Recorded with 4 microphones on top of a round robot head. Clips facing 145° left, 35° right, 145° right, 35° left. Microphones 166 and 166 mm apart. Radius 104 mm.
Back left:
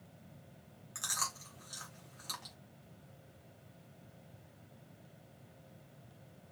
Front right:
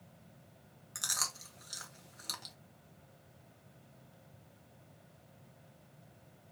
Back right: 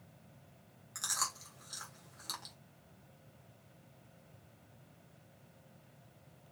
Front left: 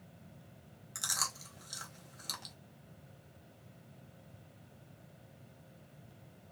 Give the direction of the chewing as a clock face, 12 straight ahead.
12 o'clock.